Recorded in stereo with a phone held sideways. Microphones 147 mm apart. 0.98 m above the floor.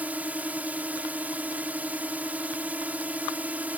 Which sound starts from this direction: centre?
A drone, at 0.0 s.